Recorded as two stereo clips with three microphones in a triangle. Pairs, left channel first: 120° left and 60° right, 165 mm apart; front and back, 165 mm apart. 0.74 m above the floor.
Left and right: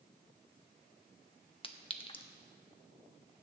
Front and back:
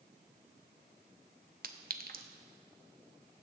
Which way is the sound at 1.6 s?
170° left.